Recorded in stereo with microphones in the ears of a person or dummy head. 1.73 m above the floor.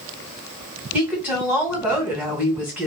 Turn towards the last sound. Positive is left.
turn(degrees=-5)  # may be behind; listen again after turning